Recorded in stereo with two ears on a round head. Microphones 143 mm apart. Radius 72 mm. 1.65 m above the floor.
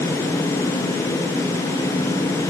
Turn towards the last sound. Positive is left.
No sound to turn to.